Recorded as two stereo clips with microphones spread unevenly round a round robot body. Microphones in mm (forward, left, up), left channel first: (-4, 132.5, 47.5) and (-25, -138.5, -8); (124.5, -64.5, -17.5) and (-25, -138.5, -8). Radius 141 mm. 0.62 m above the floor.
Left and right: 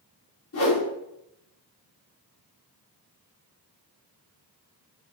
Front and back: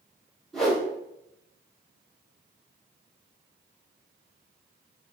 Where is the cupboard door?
No cupboard door in this recording.